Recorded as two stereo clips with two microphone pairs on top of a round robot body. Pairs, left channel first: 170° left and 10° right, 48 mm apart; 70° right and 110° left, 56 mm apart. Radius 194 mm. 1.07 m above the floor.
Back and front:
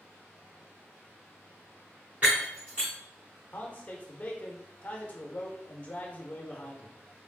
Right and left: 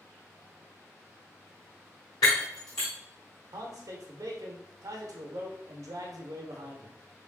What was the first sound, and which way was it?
Breaking glass, 75° right.